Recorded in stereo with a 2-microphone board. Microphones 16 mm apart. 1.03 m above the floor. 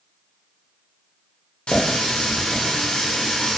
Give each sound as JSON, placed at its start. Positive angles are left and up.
{"t": 1.7, "sound": "a running tap", "side_deg": 75, "distance_m": 0.8}